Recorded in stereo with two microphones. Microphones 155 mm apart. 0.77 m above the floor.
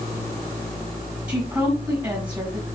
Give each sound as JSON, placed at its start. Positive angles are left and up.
{"t": 1.3, "sound": "a woman speaking", "side_deg": -25, "distance_m": 4.0}